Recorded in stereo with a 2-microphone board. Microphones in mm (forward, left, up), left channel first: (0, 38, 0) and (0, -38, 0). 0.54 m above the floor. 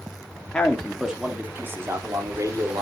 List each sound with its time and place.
0.5 s a man speaking: 15° left (ahead or behind), 1.2 m; by 2.8 s 55° right (ahead or behind), 2 m